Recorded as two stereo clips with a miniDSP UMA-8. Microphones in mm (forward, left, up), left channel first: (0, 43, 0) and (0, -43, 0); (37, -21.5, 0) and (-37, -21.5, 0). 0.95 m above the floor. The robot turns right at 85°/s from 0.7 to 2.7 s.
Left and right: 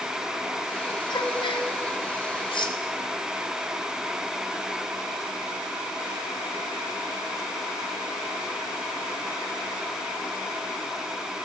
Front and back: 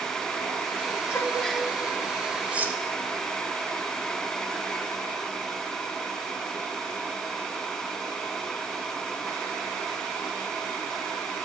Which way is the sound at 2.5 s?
105° left.